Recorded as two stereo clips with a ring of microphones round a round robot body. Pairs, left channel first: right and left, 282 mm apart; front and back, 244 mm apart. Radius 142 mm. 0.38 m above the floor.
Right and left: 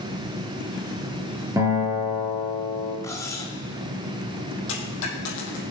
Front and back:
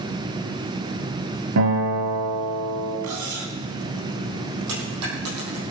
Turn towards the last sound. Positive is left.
turn(degrees=-140)